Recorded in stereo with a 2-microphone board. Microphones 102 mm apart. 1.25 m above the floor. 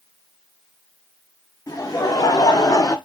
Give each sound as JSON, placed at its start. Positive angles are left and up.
{"t": 1.7, "sound": "laughter", "side_deg": 35, "distance_m": 1.1}